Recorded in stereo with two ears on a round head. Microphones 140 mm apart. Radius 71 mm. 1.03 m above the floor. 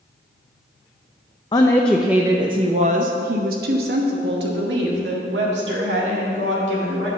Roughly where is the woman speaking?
Left.